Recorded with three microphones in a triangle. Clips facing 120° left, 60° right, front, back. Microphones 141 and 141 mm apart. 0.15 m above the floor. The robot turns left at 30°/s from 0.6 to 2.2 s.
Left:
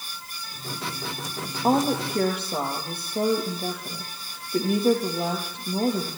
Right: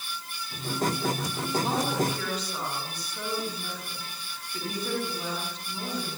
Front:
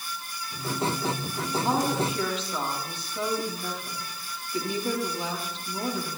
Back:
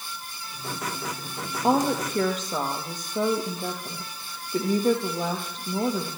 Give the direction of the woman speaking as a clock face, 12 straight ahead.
7 o'clock.